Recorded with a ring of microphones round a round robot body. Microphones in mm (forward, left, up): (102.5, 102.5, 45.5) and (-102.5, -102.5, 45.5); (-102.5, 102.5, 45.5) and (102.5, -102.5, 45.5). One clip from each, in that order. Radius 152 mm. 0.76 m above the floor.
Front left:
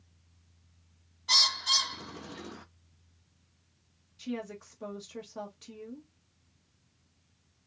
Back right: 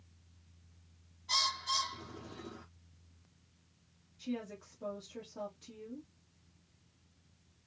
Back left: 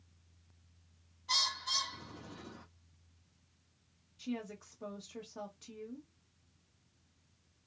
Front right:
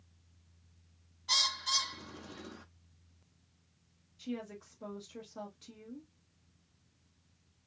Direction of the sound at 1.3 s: 20° left.